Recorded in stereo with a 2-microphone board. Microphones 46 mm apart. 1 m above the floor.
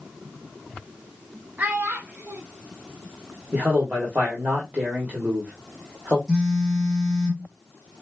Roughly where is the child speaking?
Right.